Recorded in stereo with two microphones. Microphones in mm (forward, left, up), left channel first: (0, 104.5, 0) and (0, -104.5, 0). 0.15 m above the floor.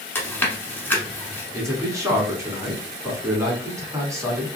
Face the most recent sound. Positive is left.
turn(degrees=-15)  # may be behind; listen again after turning